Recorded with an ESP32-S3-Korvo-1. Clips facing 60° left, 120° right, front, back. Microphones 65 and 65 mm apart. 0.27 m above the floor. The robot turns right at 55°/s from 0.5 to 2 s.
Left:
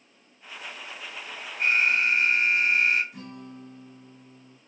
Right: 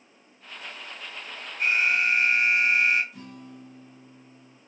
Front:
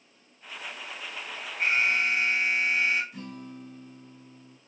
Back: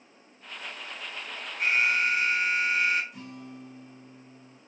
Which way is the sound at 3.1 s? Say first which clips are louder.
Left 2 dB, front 2 dB; 40° left.